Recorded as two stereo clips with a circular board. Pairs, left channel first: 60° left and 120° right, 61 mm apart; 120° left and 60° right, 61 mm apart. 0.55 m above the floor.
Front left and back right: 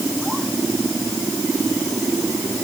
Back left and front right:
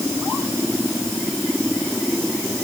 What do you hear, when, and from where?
Only background noise.